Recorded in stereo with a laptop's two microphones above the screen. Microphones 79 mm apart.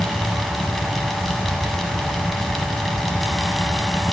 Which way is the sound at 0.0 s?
5° left (ahead or behind).